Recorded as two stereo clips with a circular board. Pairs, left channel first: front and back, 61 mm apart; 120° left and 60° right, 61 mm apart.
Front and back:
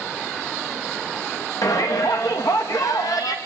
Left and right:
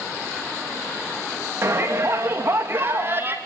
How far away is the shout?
About 6 m.